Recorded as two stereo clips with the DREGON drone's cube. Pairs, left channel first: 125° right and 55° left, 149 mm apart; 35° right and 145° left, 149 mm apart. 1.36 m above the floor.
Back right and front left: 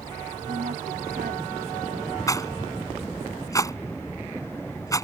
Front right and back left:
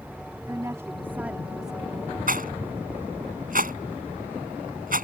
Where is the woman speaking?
75° left; by 2.2 s 50° left.